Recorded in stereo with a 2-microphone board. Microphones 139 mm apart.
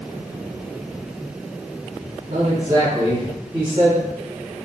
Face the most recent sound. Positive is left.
turn(degrees=-45)  # may be behind; listen again after turning